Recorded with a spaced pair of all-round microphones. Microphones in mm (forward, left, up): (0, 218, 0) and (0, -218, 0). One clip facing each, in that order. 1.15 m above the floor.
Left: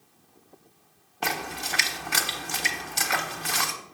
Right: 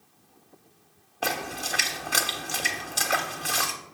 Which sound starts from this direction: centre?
A splash, at 1.2 s.